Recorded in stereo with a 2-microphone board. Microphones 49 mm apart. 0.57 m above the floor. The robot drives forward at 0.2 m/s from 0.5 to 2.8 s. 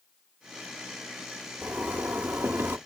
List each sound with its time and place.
1.6 s a zipper: 40° right (ahead or behind), 0.5 m; by 2.8 s 55° right (ahead or behind), 0.5 m